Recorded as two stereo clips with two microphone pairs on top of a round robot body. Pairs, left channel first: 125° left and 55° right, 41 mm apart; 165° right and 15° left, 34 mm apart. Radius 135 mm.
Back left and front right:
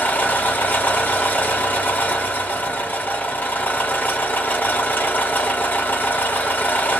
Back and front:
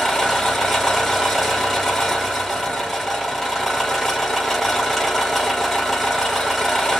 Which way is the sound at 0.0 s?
120° left.